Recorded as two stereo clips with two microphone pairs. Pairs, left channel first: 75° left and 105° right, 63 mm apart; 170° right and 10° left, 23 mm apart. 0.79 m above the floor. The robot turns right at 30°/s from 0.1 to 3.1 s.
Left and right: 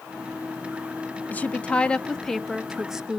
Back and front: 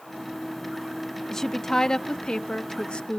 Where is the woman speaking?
120° left, 0.7 m; by 3.2 s 175° left, 0.7 m.